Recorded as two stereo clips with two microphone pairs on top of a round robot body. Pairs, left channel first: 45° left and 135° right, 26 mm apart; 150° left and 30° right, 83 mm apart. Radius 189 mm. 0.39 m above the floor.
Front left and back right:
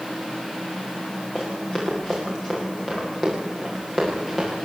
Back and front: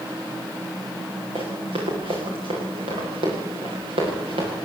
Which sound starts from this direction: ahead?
Running footsteps, at 1.4 s.